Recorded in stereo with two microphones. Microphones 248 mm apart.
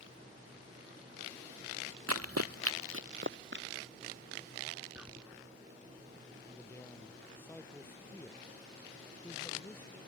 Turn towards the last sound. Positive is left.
turn(degrees=10)  # may be behind; listen again after turning